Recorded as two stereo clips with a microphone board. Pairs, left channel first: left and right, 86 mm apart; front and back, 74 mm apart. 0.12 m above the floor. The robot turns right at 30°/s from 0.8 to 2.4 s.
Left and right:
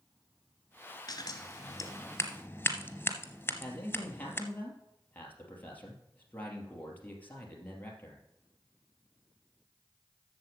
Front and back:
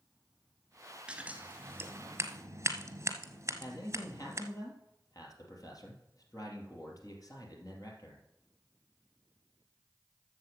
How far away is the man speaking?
About 2.5 m.